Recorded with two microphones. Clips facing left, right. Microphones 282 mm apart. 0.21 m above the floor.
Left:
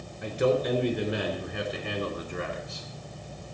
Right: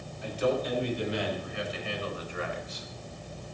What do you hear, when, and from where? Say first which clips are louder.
0.2 s a man speaking: left 4 dB; 65° left (ahead or behind), 4 m; by 2.9 s 45° left (ahead or behind), 2.5 m